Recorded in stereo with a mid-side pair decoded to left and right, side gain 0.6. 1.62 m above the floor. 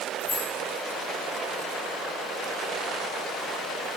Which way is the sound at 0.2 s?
40° left.